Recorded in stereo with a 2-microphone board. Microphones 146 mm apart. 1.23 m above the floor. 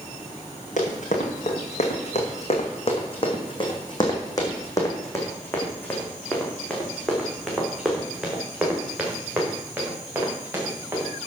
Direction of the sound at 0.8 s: 65° left (ahead or behind).